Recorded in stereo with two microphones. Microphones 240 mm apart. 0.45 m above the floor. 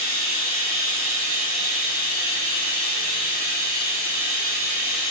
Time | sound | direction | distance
0.0 | running water | 40° left (ahead or behind) | 0.7 m